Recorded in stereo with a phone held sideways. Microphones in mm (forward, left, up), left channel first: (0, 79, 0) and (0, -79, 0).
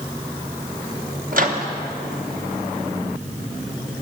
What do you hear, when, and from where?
1.3 s a microwave: 60° right (ahead or behind), 1.0 m